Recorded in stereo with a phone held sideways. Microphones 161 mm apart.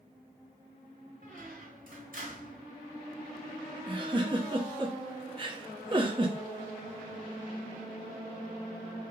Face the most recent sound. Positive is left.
turn(degrees=-30)  # may be behind; listen again after turning